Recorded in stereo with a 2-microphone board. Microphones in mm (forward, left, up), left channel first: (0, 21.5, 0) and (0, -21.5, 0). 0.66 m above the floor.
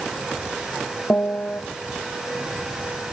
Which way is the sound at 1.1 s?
45° left (ahead or behind).